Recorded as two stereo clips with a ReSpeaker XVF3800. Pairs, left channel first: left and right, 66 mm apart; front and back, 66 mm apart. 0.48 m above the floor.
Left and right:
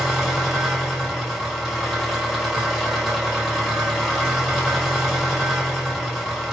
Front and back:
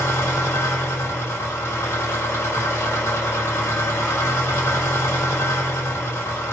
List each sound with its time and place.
0.0 s an engine running: 5° left, 1.2 m